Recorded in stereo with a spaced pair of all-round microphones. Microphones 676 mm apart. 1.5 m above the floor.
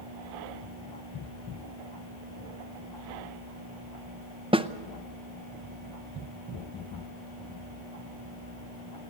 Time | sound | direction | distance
4.5 | a snare drum | 10° right (ahead or behind) | 0.7 m